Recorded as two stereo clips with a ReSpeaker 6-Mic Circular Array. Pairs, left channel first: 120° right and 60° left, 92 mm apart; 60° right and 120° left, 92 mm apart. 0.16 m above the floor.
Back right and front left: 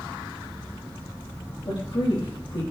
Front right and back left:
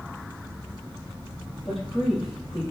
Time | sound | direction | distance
1.6 | a woman speaking | 150° right | 4 m